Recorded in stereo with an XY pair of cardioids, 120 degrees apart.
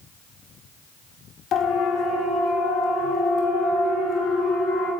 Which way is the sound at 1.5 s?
60° left.